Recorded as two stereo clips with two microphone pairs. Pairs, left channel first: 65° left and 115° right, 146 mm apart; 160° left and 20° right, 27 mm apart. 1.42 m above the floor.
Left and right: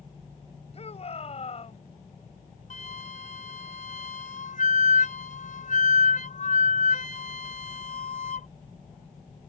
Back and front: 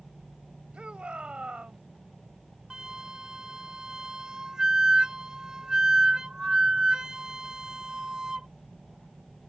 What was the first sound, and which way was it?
A shout, 20° left.